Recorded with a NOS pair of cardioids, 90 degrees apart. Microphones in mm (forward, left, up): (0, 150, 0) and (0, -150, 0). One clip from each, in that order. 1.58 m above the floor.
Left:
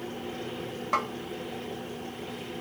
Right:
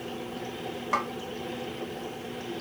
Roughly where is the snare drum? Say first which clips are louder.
Even; ahead.